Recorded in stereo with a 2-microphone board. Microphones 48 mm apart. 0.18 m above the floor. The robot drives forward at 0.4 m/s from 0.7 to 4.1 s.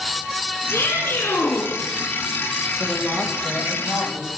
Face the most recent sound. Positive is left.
turn(degrees=-15)  # may be behind; listen again after turning